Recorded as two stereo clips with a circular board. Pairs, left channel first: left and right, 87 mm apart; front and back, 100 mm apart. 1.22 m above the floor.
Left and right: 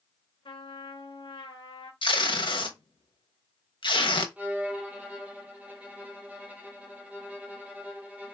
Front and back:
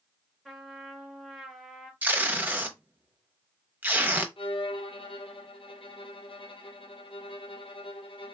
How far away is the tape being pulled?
About 0.9 m.